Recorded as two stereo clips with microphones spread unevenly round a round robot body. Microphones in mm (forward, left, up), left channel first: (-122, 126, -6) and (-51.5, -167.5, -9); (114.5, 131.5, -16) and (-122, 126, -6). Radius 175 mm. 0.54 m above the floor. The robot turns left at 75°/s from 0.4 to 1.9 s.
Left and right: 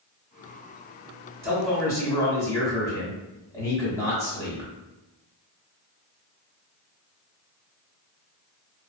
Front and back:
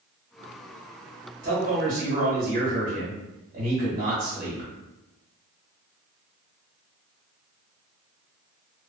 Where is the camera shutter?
I don't hear a camera shutter.